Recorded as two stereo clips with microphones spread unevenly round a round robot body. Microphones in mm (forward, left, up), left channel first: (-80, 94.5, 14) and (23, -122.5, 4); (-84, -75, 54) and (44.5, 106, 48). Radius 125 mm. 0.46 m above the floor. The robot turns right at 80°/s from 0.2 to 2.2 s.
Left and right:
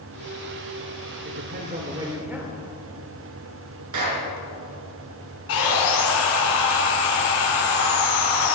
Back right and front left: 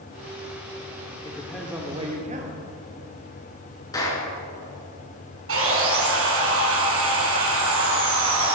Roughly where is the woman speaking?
Ahead right.